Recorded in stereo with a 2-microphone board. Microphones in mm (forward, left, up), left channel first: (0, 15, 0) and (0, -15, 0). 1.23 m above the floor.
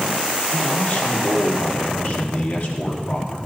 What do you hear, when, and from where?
0.5 s a man speaking: 70° left (ahead or behind), 3 m